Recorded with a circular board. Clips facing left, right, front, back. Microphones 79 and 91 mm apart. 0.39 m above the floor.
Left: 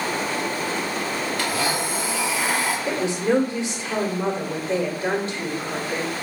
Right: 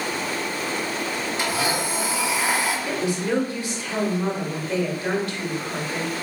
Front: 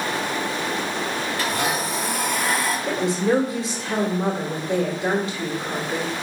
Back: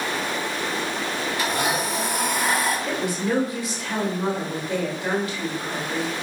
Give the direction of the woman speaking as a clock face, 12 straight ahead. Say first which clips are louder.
Left 3 dB, front 4 dB; 11 o'clock.